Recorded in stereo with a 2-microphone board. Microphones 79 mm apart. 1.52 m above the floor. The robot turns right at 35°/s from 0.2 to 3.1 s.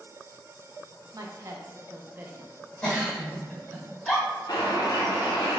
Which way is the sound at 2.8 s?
20° left (ahead or behind).